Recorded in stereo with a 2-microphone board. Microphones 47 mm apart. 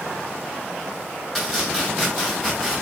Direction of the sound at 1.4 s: 10° left (ahead or behind).